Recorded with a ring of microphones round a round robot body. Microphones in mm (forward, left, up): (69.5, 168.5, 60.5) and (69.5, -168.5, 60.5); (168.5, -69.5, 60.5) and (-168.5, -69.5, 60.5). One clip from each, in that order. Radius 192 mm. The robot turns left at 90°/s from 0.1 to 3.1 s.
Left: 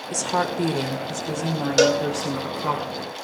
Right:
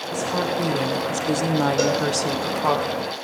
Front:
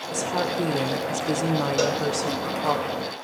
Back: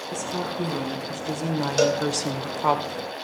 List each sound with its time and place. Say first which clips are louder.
0.1 s a woman speaking: left 1 dB, front 5 dB; 65° left, 2.5 m; by 2.8 s 175° right, 2.5 m
1.8 s a cowbell: left 2 dB, back 1 dB; 115° left, 2 m; by 3.2 s 5° right, 2 m